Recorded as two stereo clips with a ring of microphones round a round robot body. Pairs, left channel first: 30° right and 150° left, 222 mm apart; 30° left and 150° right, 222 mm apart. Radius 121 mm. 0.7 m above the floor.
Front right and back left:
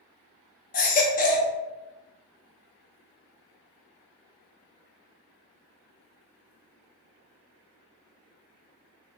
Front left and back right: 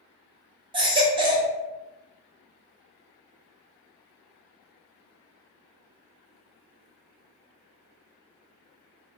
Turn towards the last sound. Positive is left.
turn(degrees=-80)